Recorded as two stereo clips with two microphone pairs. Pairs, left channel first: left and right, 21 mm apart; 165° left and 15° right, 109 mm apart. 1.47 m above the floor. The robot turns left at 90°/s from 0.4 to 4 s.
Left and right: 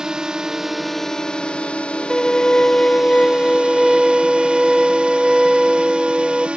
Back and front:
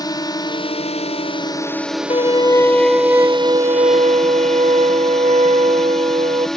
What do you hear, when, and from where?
0.0 s a drone: 145° right; by 6.6 s 105° right
2.1 s a violin: 150° left; by 6.5 s 20° right